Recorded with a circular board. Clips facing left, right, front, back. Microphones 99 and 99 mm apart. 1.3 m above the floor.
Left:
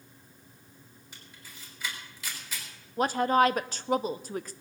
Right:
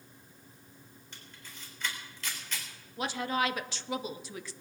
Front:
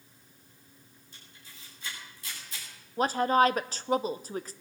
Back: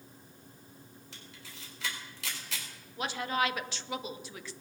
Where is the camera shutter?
170° left, 4 m.